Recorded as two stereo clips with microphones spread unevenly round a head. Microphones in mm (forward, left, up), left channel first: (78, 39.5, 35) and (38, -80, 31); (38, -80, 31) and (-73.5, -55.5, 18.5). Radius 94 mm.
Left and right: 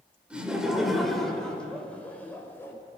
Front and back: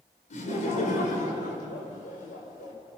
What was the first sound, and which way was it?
Laughter, 25° right.